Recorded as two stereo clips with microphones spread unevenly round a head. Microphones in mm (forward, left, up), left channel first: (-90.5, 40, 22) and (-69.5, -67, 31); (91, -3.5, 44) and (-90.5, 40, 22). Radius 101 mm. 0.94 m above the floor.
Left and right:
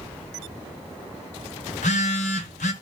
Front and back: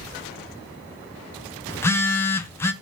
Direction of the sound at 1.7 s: 60° left.